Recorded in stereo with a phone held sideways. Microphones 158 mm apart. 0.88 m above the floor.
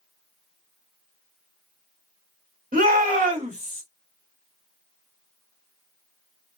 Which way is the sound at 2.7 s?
60° right (ahead or behind).